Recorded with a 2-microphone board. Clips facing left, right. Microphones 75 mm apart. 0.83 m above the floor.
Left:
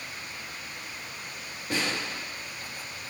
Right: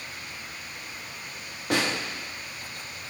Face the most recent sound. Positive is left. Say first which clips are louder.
# right 4 dB
turn(degrees=-75)  # may be behind; listen again after turning